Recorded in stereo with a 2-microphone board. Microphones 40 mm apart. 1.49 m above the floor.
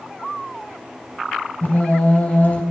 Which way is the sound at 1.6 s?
45° left (ahead or behind).